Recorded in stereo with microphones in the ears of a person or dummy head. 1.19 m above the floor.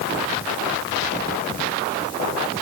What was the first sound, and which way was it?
Only background noise.